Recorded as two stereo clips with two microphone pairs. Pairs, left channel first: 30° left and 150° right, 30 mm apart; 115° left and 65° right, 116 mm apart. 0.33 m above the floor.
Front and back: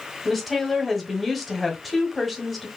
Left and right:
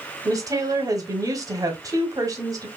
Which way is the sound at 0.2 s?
60° right.